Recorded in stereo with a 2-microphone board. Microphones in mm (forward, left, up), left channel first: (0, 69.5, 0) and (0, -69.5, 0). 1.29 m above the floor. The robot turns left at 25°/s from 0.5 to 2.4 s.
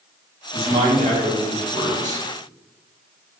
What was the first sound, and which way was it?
A man speaking, 80° right.